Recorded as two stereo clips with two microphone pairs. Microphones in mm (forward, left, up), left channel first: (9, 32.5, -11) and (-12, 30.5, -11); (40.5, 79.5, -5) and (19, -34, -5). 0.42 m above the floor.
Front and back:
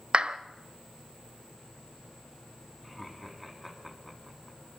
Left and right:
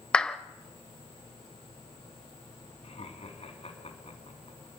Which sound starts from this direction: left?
Laughter, at 2.8 s.